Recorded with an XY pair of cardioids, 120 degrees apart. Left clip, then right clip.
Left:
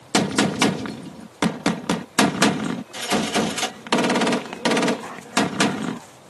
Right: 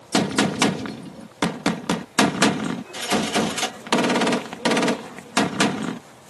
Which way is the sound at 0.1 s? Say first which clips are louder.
Left 1 dB; 5° left.